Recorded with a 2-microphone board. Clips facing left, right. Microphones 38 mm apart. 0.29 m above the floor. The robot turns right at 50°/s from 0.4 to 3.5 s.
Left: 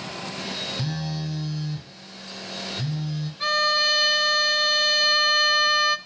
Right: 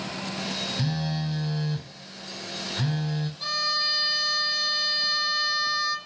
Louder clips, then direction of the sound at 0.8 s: Right 1 dB; 170° right.